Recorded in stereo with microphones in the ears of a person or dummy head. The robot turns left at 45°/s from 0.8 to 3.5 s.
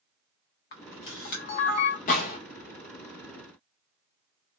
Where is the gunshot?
50° left (ahead or behind), 1.5 m; by 2.4 s 40° left (ahead or behind), 1.5 m.